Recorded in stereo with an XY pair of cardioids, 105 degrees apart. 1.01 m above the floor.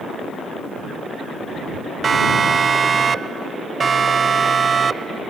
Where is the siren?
40° right.